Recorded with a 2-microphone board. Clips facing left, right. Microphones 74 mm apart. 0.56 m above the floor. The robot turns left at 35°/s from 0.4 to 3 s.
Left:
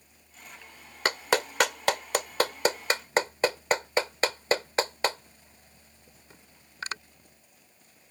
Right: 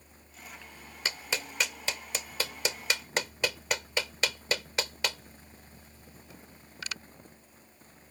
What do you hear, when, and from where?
1.1 s a clap: 60° left (ahead or behind); by 7.0 s 40° left (ahead or behind)